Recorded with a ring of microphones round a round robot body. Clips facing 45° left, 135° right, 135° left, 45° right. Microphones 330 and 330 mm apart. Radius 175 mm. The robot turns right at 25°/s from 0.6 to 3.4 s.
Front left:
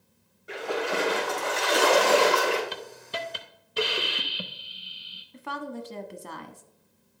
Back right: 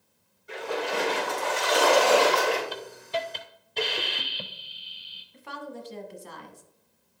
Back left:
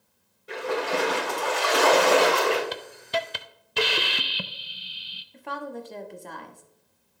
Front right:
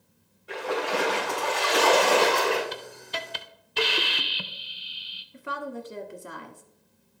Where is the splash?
75° left, 3.5 m; by 2.6 s 125° left, 3.5 m.